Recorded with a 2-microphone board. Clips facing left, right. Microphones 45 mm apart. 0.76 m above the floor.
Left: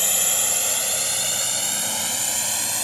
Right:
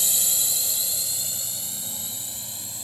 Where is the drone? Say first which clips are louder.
Left 5 dB; 50° left (ahead or behind); by 2.8 s 75° left (ahead or behind).